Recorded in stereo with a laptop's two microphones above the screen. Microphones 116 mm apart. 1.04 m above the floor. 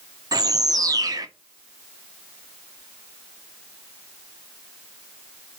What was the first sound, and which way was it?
A bird, 30° right (ahead or behind).